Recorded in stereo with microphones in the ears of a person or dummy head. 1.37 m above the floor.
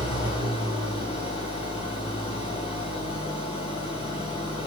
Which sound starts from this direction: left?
An engine running, at 0.0 s.